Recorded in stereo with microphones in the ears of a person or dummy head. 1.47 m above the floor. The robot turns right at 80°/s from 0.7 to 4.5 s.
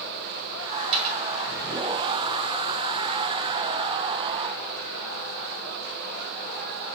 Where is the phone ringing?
No phone ringing in this recording.